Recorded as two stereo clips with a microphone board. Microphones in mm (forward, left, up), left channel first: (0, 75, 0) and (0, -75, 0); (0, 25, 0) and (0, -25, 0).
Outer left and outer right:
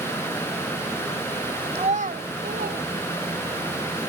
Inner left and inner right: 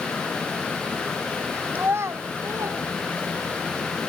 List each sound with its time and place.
1.8 s a child speaking: 40° right (ahead or behind), 0.8 m; by 3.7 s 80° right, 3.5 m